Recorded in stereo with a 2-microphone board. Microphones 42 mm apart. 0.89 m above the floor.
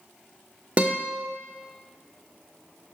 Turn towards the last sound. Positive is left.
turn(degrees=-30)  # may be behind; listen again after turning